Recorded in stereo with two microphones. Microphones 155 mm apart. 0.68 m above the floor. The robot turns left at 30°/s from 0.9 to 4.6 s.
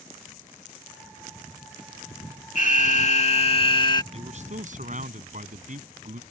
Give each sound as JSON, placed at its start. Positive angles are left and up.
{"t": 2.5, "sound": "an alarm", "azimuth_deg": 80}
{"t": 4.1, "sound": "a man speaking", "side_deg": -45}